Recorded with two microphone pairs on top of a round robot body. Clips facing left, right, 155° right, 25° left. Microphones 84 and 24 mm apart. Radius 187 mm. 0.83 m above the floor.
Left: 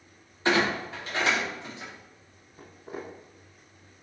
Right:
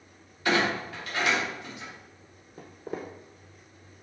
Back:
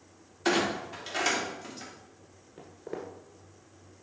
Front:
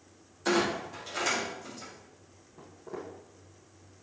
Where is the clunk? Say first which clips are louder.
Left 1 dB, even; 145° left, 3 m.